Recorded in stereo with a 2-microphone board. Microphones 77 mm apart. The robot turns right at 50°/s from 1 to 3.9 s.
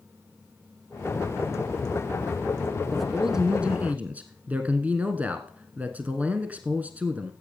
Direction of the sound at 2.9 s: 5° left (ahead or behind).